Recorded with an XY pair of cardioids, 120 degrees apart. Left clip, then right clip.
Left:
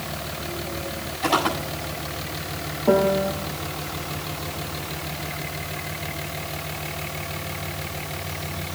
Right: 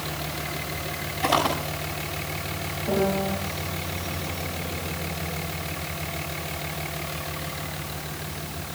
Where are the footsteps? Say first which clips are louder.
Left 1 dB; 5° right, 7.5 m.